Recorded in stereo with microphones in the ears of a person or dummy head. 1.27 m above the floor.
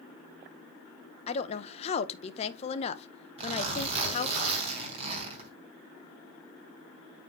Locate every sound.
1.3 s a woman speaking: 35° left (ahead or behind), 0.9 m
3.4 s a zipper: 35° right (ahead or behind), 3 m